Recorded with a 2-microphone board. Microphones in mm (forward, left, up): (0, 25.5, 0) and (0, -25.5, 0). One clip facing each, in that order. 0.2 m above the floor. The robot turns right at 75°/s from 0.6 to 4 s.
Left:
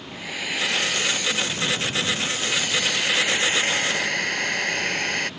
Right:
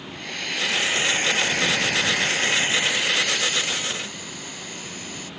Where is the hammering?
I don't hear hammering.